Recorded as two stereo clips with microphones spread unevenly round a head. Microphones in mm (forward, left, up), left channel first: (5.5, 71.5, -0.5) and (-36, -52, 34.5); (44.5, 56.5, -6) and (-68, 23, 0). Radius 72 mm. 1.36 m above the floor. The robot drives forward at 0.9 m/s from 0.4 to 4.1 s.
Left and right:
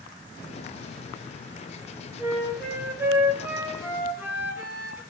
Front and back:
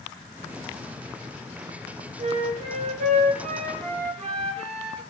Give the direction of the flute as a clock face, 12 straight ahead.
6 o'clock.